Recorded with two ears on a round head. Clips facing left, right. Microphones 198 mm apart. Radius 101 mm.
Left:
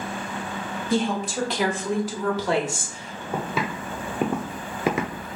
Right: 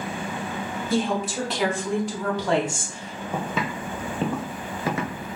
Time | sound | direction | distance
0.9 | a woman speaking | 5° right (ahead or behind) | 1.0 m
3.3 | footsteps | 5° left (ahead or behind) | 0.9 m